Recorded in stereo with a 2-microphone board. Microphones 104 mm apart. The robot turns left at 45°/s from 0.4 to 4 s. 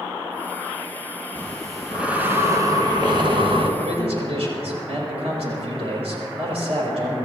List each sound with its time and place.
1.4 s breathing: 20° left, 1.9 m; by 3.7 s 90° right, 1.9 m
3.8 s a man speaking: 85° right, 6 m; by 7.2 s 75° right (ahead or behind), 6 m